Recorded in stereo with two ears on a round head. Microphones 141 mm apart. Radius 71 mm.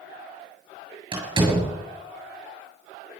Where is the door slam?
30° right (ahead or behind), 7.5 m.